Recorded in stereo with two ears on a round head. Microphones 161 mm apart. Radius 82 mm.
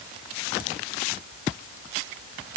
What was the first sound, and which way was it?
Only background noise.